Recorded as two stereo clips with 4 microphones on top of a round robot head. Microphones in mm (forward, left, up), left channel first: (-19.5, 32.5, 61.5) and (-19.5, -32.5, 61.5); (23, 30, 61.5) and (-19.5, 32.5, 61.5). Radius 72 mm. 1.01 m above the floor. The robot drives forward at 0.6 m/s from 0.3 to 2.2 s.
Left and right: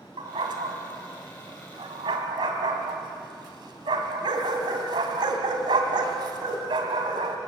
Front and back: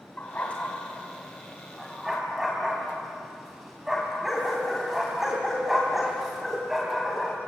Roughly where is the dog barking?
Right.